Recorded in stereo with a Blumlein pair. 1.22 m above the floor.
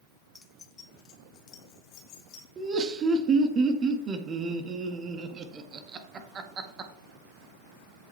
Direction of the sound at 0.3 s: 15° left.